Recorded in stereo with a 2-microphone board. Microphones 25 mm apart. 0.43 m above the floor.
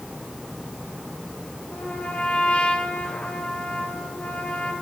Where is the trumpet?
55° left (ahead or behind), 4 m.